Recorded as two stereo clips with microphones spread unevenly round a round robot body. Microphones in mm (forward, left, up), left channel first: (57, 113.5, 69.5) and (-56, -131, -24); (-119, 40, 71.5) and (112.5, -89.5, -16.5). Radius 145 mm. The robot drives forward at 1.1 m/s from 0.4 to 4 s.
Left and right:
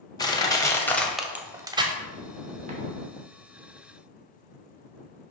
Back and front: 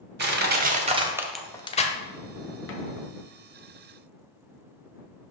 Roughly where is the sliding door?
No sliding door in this recording.